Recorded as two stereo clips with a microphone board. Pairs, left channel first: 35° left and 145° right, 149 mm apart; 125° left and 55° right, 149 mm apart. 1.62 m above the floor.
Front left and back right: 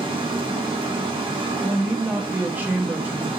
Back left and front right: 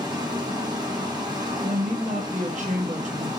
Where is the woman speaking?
70° right, 0.9 m.